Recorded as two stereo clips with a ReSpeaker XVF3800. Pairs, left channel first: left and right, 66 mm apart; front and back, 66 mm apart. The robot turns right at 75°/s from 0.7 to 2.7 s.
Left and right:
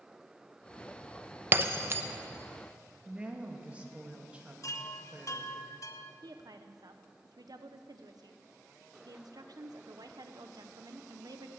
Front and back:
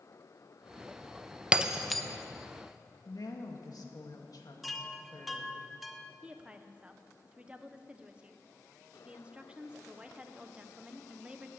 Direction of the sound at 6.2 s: 105° right.